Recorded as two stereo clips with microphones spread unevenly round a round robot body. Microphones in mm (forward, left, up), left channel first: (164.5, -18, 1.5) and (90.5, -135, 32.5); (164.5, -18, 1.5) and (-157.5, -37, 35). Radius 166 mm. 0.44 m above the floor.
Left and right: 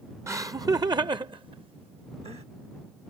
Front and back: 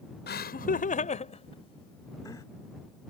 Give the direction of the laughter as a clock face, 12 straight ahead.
2 o'clock.